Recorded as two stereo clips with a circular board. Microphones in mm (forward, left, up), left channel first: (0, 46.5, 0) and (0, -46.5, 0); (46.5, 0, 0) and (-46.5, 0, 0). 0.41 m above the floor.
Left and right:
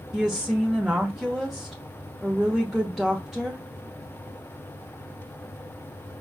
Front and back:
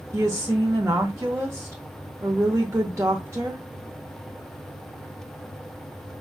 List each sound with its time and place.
0.1 s a woman speaking: 170° right, 0.8 m